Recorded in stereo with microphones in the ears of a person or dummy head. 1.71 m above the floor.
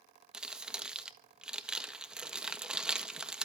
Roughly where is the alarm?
I don't hear an alarm.